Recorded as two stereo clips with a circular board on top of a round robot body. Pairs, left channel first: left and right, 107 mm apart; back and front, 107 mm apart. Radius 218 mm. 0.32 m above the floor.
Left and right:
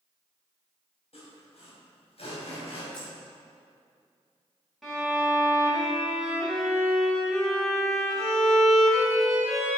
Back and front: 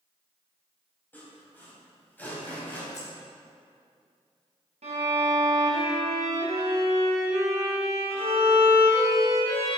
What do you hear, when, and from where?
1.1 s sawing: 110° left, 4 m
2.9 s keys jangling: 165° left, 4.5 m
4.8 s a violin: straight ahead, 3 m